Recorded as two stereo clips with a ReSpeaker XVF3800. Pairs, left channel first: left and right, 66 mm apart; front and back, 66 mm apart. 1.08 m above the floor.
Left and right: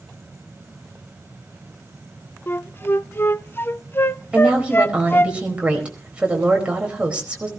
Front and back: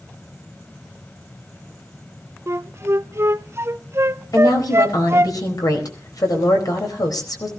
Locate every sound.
2.5 s a flute: 140° left, 0.6 m
4.3 s a woman speaking: 20° right, 4.5 m